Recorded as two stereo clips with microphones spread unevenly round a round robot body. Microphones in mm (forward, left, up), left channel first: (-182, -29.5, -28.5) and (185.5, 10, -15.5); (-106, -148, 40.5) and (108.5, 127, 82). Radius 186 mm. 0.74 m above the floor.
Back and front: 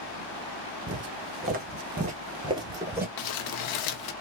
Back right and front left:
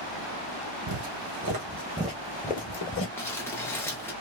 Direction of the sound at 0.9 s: 70° left.